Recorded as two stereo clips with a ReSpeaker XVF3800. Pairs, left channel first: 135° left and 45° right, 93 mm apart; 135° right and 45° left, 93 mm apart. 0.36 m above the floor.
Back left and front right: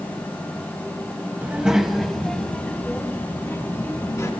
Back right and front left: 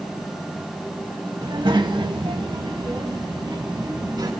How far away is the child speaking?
About 1.7 m.